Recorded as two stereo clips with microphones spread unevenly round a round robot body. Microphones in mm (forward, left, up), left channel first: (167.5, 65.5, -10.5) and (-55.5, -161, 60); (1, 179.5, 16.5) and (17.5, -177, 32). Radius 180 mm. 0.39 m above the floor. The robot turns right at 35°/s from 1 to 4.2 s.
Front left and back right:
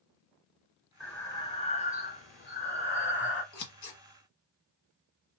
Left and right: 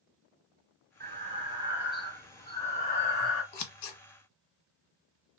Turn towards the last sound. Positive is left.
turn(degrees=105)